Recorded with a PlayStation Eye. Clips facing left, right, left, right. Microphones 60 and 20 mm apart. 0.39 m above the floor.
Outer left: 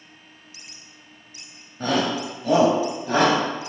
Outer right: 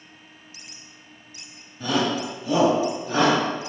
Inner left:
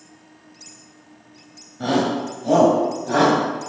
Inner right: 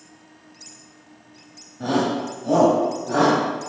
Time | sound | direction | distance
1.8 | a shout | 55° left (ahead or behind) | 2.5 m